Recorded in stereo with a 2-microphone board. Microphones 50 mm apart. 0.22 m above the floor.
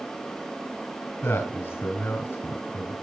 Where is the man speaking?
45° left (ahead or behind), 2.5 m.